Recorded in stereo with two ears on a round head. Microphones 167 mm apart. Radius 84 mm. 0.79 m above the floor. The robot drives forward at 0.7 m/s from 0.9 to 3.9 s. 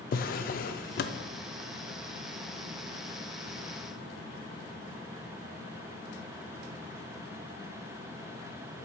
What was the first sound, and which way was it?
A drawer, 50° left (ahead or behind).